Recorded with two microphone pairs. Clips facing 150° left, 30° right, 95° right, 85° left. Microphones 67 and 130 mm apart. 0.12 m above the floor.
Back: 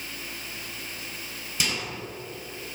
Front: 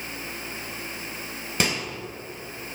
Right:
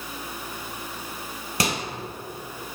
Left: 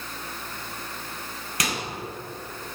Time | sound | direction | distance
1.6 | a microwave | 40° right | 2 m